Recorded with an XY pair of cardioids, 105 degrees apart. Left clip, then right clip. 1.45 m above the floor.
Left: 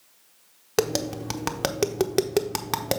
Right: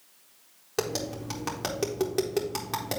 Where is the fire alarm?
No fire alarm in this recording.